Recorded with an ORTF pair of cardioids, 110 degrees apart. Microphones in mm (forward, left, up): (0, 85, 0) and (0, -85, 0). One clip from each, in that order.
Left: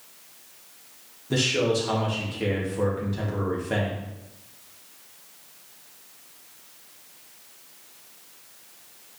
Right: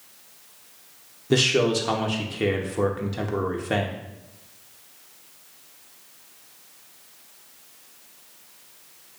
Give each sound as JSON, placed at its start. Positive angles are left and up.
{"t": 1.3, "sound": "a man speaking", "azimuth_deg": -35, "distance_m": 1.1}